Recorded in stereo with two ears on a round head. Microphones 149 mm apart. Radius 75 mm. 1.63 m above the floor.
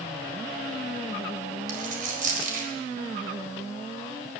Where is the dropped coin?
50° right (ahead or behind), 4.5 m.